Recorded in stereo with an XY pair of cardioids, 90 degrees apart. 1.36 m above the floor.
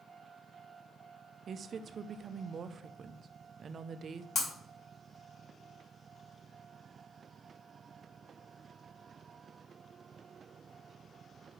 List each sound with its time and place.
1.5 s a woman speaking: 55° right, 0.7 m
4.3 s breaking glass: 60° left, 4 m